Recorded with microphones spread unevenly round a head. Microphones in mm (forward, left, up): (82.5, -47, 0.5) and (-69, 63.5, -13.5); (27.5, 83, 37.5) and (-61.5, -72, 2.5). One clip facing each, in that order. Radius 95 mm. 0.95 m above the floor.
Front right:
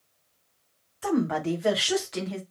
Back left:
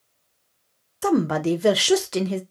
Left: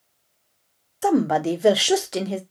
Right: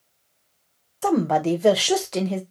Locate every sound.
1.0 s a woman speaking: 145° left, 0.6 m